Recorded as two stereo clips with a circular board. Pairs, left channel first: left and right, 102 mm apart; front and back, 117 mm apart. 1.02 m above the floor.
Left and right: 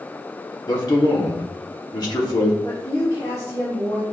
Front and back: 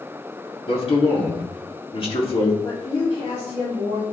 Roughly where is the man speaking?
Ahead left.